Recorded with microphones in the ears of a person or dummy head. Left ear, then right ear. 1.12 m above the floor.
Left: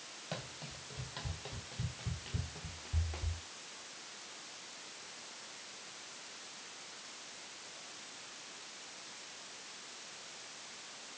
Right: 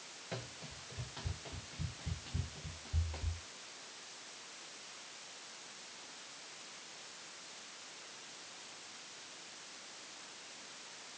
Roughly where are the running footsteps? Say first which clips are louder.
Left 1 dB; left.